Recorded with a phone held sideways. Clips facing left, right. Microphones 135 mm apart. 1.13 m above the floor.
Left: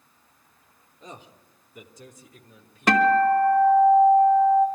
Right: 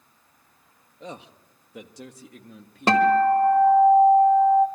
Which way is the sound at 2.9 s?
30° right (ahead or behind).